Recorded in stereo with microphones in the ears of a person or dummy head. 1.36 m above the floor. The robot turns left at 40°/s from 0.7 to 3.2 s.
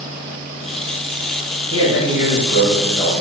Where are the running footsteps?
No running footsteps in this recording.